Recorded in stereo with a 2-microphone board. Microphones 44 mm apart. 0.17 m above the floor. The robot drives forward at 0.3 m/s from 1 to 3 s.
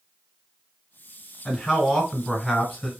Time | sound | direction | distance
1.4 | a man speaking | 5° left (ahead or behind) | 1.4 m